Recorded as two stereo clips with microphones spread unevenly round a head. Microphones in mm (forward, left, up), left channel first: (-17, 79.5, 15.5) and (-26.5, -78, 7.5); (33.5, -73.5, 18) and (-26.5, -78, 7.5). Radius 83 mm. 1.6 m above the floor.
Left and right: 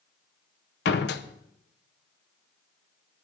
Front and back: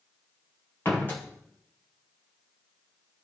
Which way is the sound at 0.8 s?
70° left.